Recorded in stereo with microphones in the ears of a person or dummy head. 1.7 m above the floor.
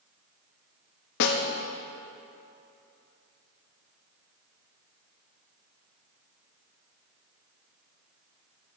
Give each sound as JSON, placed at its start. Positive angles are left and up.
{"t": 1.2, "sound": "a snare drum", "side_deg": 60, "distance_m": 0.9}